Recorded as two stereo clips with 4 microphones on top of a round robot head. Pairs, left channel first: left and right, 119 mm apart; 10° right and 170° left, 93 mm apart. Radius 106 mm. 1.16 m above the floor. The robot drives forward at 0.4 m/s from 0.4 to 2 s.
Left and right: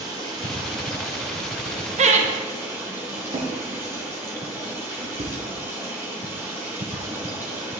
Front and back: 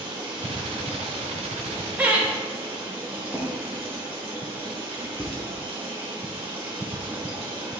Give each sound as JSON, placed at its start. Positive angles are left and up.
{"t": 0.0, "sound": "running water", "azimuth_deg": -140, "distance_m": 1.1}
{"t": 2.0, "sound": "laughter", "azimuth_deg": -115, "distance_m": 1.0}
{"t": 3.3, "sound": "a drawer", "azimuth_deg": -95, "distance_m": 0.8}